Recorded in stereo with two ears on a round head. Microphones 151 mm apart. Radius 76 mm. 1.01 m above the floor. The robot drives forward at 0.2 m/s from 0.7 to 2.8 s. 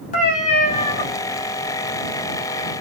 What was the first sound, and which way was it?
A cat meowing, 50° left (ahead or behind).